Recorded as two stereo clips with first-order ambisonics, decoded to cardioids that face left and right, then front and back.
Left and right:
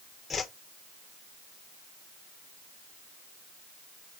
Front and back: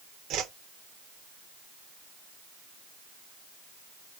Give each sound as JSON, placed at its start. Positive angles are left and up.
{"t": 0.3, "sound": "a whoosh", "azimuth_deg": 160, "distance_m": 0.6}